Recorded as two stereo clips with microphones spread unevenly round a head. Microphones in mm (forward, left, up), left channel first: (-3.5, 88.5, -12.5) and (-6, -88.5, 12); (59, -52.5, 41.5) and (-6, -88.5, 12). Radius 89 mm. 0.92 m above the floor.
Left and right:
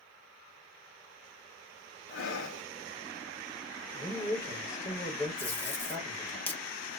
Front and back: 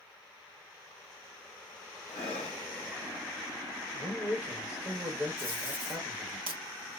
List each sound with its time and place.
2.1 s breathing: 65° left, 0.8 m
3.9 s a man speaking: 150° left, 1.3 m
5.4 s tape being pulled: 175° left, 0.7 m